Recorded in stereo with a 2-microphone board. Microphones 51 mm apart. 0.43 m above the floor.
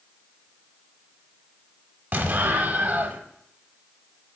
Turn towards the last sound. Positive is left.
turn(degrees=-35)  # may be behind; listen again after turning